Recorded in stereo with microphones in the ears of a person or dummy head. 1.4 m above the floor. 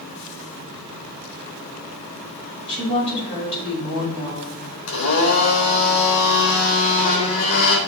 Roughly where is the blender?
Left.